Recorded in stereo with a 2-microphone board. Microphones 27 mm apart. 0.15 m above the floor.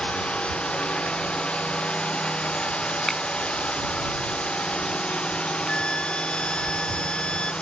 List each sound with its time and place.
0.0 s a drone: 40° left (ahead or behind)
3.1 s a finger snap: 10° left (ahead or behind)
5.7 s a flute: 35° left (ahead or behind)